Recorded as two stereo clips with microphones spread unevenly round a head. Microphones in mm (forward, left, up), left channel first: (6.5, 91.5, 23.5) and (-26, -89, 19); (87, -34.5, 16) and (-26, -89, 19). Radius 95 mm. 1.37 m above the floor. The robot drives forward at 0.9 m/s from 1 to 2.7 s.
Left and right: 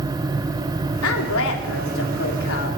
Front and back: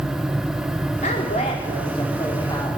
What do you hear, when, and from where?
1.0 s a woman speaking: 80° left, 4 m; by 2.8 s 100° left, 4 m